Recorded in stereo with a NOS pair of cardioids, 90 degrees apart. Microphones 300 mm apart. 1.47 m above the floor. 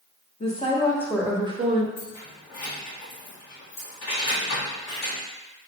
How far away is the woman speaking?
About 1.2 m.